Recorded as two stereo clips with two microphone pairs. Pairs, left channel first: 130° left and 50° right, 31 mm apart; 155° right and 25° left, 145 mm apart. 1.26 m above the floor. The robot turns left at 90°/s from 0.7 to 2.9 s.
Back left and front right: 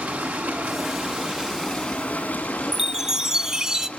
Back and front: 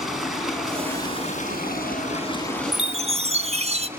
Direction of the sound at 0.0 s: 65° right.